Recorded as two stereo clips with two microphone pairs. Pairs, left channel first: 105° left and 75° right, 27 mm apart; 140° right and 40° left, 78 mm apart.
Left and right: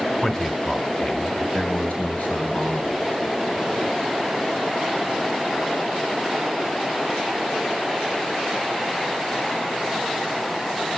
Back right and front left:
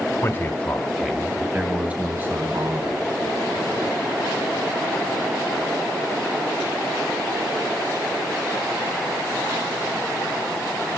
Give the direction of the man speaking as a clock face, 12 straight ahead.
6 o'clock.